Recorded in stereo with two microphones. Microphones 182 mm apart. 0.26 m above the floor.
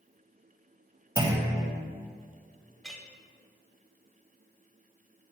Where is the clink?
Centre (ahead or behind), 0.8 m.